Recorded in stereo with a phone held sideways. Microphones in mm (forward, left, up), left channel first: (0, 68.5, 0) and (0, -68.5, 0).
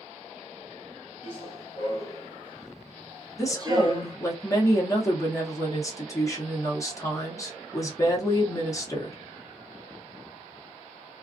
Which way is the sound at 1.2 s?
45° left (ahead or behind).